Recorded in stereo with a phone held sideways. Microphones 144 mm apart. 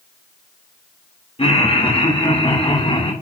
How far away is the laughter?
About 3 m.